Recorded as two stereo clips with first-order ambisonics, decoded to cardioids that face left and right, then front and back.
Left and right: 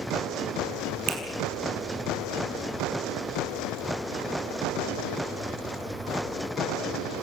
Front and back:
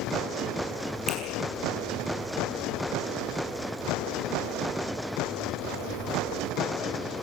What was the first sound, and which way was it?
A finger snap, 105° right.